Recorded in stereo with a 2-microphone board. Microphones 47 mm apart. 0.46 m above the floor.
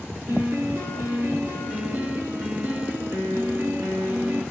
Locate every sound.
0.3 s a piano: 80° right, 4 m